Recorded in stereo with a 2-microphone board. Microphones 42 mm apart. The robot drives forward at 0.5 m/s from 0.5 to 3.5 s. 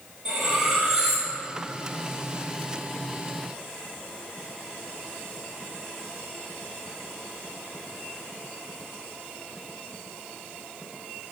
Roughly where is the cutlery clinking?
Centre.